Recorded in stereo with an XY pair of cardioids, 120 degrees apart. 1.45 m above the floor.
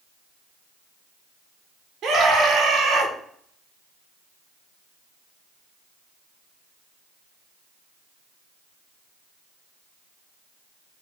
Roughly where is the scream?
Ahead right.